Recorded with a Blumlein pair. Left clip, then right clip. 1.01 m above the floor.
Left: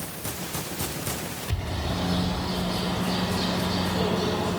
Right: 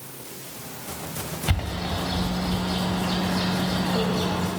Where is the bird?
50° right, 2 m.